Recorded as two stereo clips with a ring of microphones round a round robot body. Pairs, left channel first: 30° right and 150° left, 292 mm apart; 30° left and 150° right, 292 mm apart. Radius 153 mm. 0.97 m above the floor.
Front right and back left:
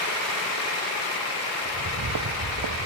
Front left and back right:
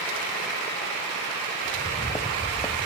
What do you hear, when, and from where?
1.6 s footsteps: 105° left; by 2.9 s 110° left